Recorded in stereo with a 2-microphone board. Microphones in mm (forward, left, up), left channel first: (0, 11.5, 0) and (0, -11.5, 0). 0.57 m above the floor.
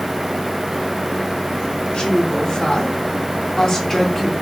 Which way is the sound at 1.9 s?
55° left (ahead or behind).